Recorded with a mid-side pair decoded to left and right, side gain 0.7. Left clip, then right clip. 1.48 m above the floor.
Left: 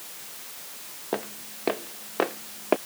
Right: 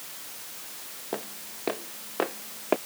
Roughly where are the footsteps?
Ahead.